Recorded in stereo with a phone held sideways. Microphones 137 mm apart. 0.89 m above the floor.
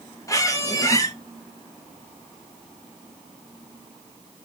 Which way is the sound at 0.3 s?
25° left (ahead or behind).